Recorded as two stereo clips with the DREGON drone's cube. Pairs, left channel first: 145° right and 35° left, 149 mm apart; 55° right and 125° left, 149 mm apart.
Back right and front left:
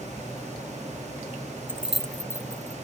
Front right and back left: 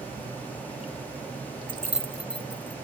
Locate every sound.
1.7 s keys jangling: 100° left, 0.6 m; by 2.8 s 80° right, 1.2 m